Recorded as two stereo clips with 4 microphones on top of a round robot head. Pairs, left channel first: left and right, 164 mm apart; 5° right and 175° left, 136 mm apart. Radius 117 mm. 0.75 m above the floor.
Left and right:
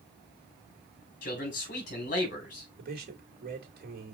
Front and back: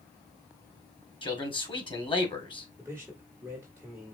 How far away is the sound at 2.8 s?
About 1.8 m.